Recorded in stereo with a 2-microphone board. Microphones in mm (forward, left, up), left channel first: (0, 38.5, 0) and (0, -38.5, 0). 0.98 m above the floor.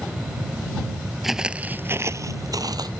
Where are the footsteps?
Centre (ahead or behind); by 2.9 s 60° right (ahead or behind).